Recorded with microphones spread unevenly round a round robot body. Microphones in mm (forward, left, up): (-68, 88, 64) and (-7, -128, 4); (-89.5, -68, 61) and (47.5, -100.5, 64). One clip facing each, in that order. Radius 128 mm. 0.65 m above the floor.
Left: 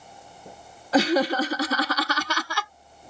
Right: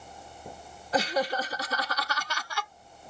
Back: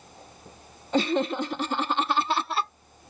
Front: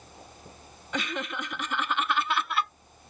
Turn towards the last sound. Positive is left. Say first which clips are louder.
# left 8 dB, back 10 dB
turn(degrees=115)